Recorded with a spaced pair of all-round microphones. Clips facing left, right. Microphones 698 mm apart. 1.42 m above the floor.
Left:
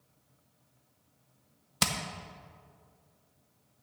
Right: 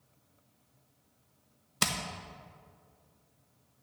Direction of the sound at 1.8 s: 20° left (ahead or behind).